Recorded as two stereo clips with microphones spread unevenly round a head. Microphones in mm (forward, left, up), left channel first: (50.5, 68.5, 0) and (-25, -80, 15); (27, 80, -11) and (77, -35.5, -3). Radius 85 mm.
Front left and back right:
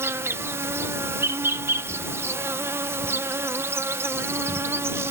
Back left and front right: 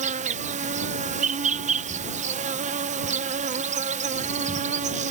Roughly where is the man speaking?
I don't hear a man speaking.